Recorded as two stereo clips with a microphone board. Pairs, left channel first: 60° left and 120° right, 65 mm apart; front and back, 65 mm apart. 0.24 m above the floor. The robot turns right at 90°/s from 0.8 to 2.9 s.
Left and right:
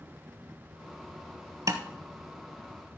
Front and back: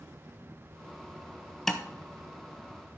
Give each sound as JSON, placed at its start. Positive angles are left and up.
{"t": 1.7, "sound": "tapping", "azimuth_deg": -85, "distance_m": 0.9}